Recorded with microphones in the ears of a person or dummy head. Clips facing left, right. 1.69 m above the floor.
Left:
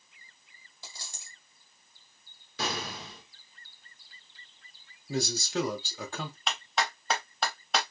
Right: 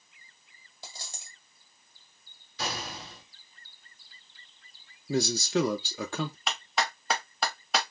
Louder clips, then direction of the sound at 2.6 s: Left 2 dB; 55° left (ahead or behind).